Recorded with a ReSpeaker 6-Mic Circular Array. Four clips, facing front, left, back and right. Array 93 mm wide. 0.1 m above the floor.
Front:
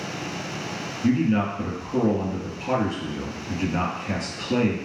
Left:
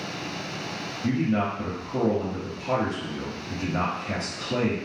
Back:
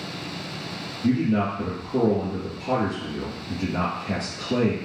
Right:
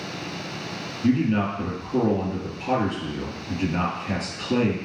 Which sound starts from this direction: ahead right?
A man speaking, at 1.0 s.